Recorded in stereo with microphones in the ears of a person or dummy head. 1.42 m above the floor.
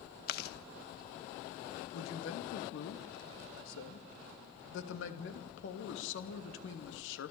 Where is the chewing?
55° left (ahead or behind), 1.5 m.